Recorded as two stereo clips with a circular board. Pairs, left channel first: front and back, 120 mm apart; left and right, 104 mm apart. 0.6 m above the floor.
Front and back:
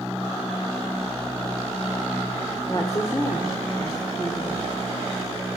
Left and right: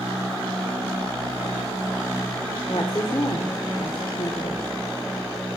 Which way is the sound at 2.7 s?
55° left.